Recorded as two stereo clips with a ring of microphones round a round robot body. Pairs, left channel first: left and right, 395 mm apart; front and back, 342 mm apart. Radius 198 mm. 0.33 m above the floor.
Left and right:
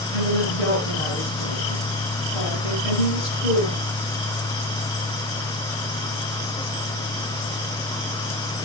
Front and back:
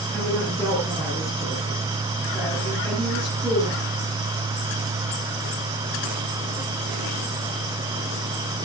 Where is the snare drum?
No snare drum in this recording.